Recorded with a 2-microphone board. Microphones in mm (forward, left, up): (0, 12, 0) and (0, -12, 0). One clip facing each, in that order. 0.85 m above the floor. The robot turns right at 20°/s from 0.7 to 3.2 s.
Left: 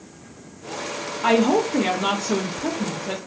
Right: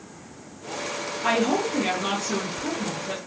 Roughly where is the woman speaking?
Ahead left.